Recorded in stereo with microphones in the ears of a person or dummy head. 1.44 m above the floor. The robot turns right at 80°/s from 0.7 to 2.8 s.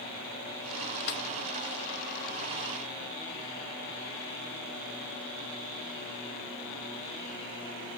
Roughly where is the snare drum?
Left.